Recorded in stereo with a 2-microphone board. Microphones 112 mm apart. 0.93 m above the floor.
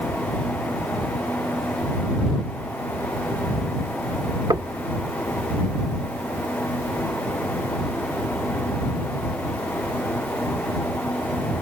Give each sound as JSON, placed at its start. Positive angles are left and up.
{"t": 4.5, "sound": "knocking", "side_deg": -40}